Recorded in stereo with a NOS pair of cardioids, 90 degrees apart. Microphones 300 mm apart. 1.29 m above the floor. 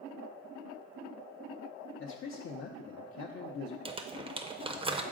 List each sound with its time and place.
2.0 s a man speaking: 45° left, 0.7 m
3.9 s crumpling: 20° right, 0.6 m